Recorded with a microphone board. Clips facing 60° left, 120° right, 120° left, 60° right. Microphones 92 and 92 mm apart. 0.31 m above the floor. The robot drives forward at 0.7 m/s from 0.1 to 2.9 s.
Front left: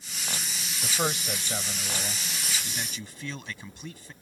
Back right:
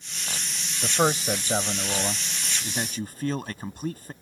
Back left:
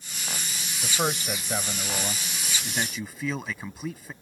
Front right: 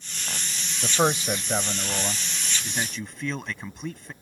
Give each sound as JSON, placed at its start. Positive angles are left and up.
{"t": 0.8, "sound": "a man speaking", "azimuth_deg": -90}